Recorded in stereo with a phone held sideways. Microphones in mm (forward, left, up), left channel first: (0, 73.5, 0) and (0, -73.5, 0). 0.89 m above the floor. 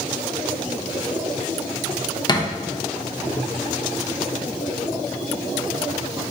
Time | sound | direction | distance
2.3 | a thud | 30° left (ahead or behind) | 0.5 m